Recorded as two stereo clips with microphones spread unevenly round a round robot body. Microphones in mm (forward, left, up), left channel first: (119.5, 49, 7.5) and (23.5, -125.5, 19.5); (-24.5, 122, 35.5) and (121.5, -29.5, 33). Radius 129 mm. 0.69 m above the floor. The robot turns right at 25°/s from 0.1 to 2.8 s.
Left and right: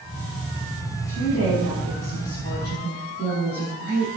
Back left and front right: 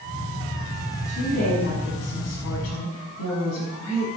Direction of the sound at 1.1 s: 100° left.